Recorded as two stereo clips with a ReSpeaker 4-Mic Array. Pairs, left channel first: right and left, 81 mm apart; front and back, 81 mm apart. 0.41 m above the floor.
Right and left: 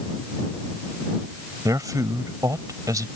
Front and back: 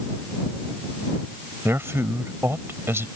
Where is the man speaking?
125° left.